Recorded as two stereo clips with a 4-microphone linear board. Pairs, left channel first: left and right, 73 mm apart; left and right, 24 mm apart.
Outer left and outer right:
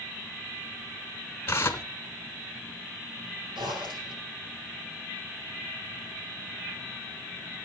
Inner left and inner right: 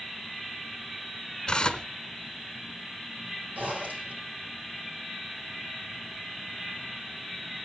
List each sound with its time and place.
1.5 s tearing paper: 35° left (ahead or behind), 1.1 m
3.5 s a zipper: 85° right, 6 m